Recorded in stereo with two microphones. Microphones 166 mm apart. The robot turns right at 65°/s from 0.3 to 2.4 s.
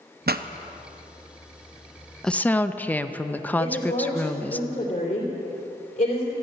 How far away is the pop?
About 0.5 m.